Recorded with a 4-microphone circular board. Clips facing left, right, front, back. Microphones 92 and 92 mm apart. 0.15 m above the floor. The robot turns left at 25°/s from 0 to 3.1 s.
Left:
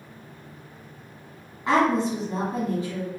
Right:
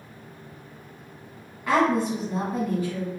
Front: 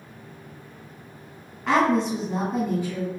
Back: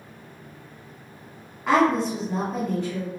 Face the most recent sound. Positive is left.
turn(degrees=65)